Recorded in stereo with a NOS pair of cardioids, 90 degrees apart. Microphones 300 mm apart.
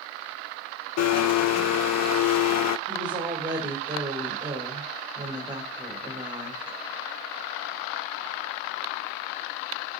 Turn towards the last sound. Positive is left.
turn(degrees=-15)